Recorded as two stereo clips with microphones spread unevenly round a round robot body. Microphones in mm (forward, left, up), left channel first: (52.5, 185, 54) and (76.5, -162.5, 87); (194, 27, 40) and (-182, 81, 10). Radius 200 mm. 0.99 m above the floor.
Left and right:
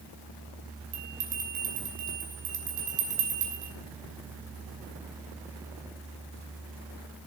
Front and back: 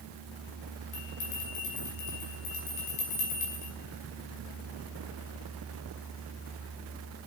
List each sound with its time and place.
0.9 s a bell: 50° right, 5.5 m